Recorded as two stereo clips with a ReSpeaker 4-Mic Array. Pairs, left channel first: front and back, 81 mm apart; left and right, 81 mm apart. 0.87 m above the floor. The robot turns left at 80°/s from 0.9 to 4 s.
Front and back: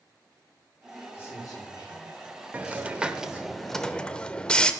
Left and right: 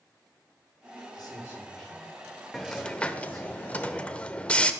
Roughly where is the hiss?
Behind.